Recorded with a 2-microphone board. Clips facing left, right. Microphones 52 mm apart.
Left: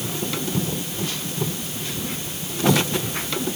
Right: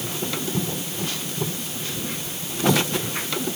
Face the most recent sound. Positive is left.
No sound to turn to.